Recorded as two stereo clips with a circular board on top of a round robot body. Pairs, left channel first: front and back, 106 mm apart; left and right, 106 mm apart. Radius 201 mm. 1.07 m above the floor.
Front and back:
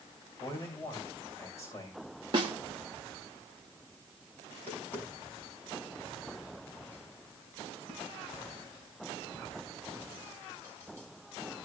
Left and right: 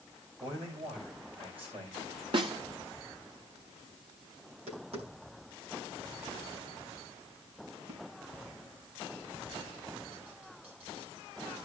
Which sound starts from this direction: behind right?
A snare drum, at 2.3 s.